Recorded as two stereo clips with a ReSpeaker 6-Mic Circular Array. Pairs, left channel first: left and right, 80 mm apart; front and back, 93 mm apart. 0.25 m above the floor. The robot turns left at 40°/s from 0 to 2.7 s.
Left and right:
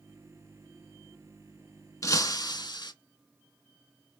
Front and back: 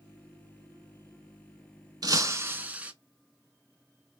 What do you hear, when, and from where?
2.0 s breaking glass: 135° left, 0.5 m; by 2.9 s 110° left, 0.5 m